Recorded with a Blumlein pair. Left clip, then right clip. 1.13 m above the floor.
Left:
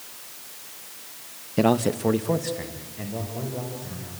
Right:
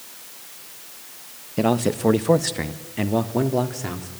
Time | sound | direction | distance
1.6 | a man speaking | 5° left | 1.1 m